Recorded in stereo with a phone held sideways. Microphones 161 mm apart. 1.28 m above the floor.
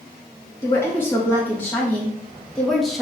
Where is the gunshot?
No gunshot in this recording.